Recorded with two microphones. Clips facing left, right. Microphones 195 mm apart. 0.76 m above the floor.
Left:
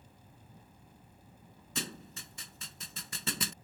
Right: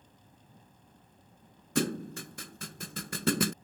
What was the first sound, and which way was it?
A thud, 65° right (ahead or behind).